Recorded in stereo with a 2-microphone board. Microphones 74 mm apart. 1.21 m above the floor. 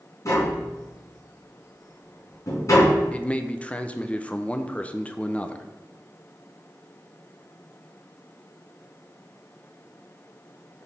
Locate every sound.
0.2 s tapping: 45° left (ahead or behind), 3.5 m
3.1 s a man speaking: 15° left (ahead or behind), 0.6 m